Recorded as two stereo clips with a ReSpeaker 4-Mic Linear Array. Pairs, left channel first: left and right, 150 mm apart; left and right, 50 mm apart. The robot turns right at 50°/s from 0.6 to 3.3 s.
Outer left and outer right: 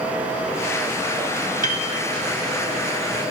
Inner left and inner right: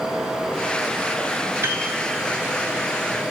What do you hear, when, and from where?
1.6 s a piano: 55° right (ahead or behind), 0.7 m; by 1.8 s 60° right (ahead or behind), 0.7 m